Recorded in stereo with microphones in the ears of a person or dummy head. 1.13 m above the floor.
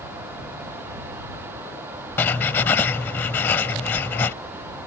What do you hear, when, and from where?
2.2 s writing: 10° left (ahead or behind)